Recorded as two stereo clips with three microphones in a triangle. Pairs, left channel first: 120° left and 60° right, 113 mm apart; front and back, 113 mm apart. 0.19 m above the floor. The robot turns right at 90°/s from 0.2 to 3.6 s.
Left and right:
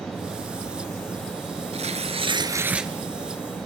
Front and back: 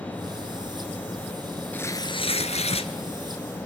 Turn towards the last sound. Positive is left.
turn(degrees=95)